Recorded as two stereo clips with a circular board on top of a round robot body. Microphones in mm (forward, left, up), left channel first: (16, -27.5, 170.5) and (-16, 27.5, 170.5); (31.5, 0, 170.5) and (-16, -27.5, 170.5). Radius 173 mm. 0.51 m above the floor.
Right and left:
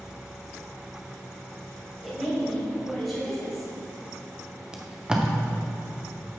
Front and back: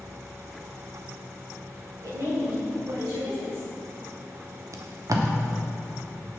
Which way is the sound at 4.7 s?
160° right.